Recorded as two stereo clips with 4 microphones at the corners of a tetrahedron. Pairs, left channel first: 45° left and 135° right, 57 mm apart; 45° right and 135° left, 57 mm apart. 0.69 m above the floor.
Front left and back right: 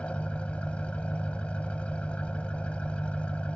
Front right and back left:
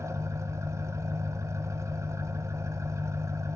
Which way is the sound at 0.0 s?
110° left.